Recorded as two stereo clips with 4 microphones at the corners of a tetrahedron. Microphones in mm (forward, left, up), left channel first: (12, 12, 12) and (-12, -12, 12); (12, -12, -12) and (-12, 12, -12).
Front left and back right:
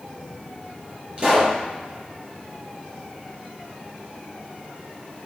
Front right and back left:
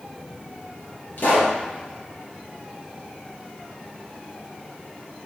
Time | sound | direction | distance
1.2 | a pop | 75° right | 4 m